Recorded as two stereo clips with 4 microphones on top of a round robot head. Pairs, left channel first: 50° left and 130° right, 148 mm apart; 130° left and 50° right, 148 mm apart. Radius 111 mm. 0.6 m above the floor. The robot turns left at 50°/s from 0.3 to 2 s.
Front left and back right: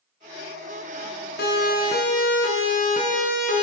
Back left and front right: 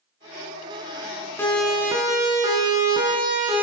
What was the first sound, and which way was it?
A siren, 55° left.